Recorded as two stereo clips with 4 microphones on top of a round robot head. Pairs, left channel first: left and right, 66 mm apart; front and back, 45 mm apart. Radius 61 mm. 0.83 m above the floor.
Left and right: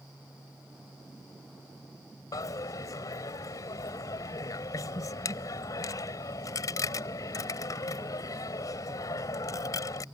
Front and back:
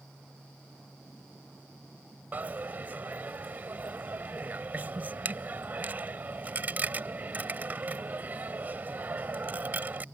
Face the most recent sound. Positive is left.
turn(degrees=125)